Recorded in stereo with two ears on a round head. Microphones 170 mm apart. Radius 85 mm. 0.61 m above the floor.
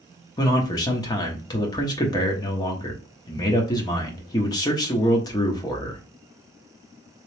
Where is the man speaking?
20° left (ahead or behind), 0.9 m.